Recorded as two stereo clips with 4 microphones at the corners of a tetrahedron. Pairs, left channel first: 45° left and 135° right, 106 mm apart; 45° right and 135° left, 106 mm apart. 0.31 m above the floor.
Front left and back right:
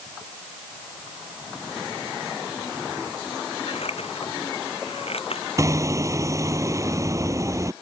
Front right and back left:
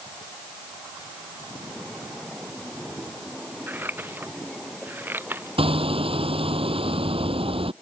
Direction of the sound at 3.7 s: 65° left.